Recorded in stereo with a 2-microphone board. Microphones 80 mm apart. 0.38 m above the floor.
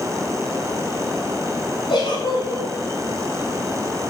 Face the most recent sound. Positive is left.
turn(degrees=80)